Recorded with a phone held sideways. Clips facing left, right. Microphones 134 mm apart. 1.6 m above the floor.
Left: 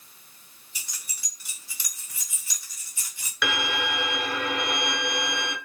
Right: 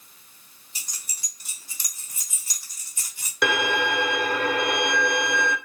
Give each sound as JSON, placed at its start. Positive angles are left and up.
{"t": 0.8, "sound": "keys jangling", "side_deg": -40, "distance_m": 1.7}
{"t": 3.4, "sound": "a violin", "side_deg": -45, "distance_m": 0.8}